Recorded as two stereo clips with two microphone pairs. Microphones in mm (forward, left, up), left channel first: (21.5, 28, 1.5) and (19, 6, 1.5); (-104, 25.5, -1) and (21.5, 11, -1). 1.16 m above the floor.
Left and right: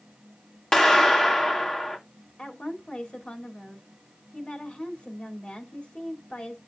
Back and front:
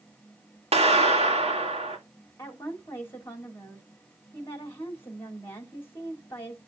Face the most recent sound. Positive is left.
turn(degrees=105)